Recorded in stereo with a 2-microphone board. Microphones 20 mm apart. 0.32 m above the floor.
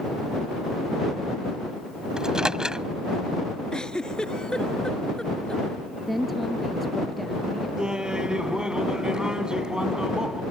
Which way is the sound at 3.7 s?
35° left (ahead or behind).